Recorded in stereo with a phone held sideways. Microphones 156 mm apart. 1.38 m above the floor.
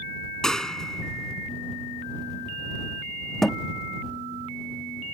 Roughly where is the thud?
Centre.